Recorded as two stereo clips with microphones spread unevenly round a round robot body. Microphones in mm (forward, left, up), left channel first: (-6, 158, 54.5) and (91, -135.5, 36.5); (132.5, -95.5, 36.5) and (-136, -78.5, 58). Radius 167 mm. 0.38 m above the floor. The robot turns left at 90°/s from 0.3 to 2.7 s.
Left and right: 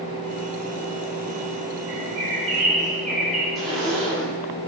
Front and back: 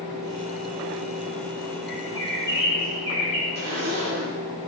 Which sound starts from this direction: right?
A bird, at 1.9 s.